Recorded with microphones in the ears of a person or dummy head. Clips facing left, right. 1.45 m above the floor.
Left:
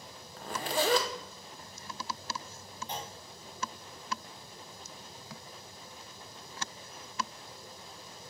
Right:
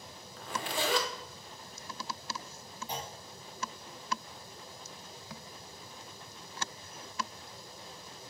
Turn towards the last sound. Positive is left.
turn(degrees=-10)  # may be behind; listen again after turning